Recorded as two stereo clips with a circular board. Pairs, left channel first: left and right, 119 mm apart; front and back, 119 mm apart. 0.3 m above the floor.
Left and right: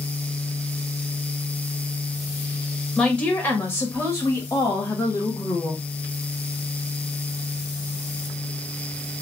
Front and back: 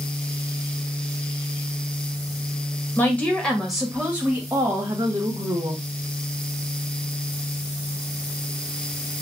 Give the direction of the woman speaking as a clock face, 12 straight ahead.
11 o'clock.